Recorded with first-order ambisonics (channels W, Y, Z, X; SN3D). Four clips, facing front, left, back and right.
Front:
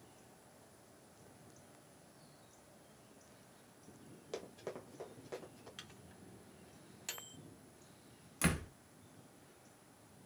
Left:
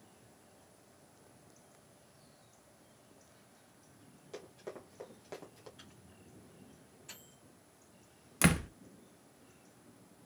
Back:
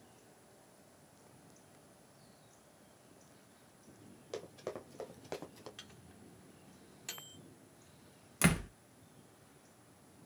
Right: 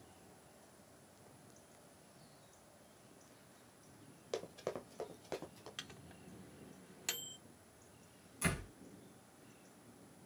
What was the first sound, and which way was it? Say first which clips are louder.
Running footsteps: right 5 dB, back 2 dB; 90° right.